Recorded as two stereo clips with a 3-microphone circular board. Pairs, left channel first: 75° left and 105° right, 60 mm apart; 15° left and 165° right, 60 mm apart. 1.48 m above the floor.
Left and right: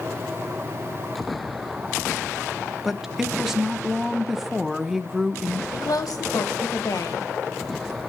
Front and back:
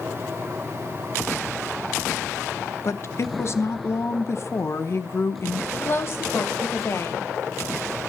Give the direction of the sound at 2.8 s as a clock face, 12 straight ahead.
1 o'clock.